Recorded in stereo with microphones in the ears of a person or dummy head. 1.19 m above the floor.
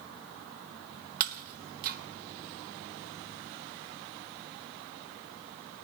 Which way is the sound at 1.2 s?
50° right (ahead or behind).